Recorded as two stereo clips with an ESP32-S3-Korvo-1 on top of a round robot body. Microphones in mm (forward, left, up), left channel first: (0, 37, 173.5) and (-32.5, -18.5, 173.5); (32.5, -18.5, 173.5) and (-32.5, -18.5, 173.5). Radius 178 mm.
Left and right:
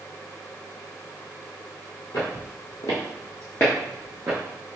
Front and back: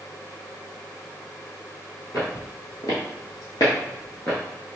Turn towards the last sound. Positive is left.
turn(degrees=-70)